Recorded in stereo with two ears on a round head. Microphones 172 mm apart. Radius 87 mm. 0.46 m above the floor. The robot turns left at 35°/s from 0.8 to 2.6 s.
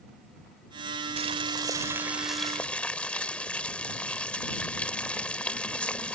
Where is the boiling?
140° right; by 6.2 s 170° left.